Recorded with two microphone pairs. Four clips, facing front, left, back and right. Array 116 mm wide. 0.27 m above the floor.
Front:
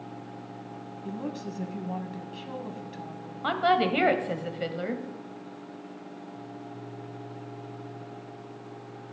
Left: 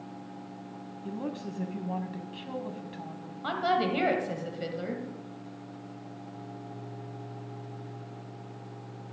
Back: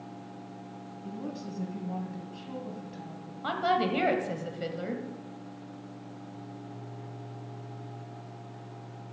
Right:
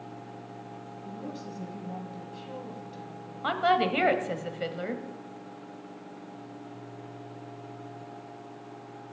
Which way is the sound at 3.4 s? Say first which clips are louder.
Right 3 dB, front 3 dB; 40° right.